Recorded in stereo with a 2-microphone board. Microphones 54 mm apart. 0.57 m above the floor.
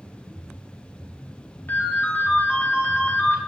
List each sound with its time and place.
1.7 s a ringtone: 35° left (ahead or behind), 0.9 m